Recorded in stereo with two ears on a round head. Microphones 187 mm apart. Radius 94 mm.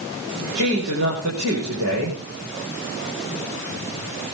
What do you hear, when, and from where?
0.6 s a man speaking: 75° right (ahead or behind), 6 m